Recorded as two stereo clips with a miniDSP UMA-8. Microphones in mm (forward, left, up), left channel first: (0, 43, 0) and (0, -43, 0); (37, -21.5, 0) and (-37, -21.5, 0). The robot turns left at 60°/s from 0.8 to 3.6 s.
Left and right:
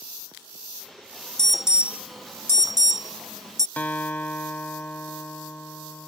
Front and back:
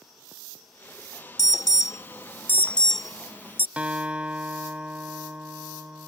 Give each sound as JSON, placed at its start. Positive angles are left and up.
{"t": 1.4, "sound": "an alarm", "azimuth_deg": 10}
{"t": 3.8, "sound": "a guitar", "azimuth_deg": 130}